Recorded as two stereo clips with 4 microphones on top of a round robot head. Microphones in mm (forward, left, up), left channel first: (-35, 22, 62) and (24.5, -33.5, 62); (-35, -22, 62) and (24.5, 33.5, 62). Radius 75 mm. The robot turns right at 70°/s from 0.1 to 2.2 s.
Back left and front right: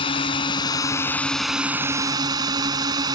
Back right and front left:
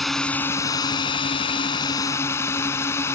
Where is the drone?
135° left; by 3.2 s 80° right.